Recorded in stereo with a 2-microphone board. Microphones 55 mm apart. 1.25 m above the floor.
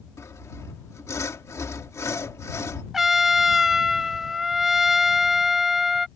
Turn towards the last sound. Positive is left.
turn(degrees=-5)  # may be behind; listen again after turning